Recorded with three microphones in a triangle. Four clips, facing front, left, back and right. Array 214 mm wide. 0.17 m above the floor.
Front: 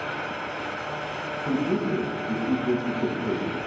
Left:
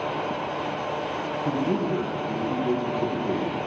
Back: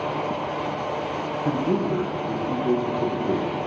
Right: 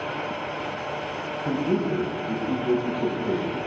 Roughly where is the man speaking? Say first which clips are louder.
Right 1 dB, back 1 dB; behind.